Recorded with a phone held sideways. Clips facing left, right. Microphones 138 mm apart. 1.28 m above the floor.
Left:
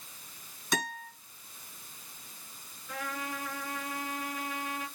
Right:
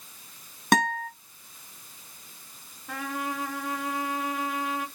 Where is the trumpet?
75° right (ahead or behind), 4.5 m.